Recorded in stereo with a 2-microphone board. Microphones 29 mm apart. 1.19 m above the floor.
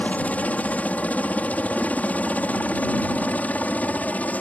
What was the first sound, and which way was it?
A helicopter, 60° left (ahead or behind).